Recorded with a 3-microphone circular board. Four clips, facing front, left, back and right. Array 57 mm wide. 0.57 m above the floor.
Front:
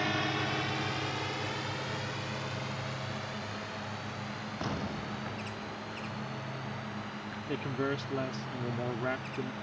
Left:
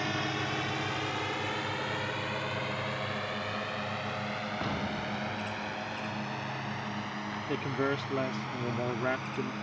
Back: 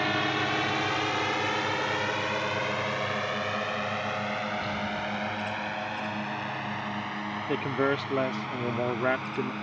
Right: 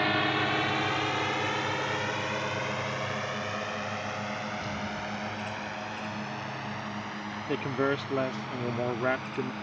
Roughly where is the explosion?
Ahead left.